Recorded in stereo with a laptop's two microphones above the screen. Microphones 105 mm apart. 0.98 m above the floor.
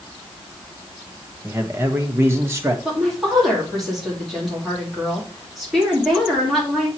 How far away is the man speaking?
About 1.0 m.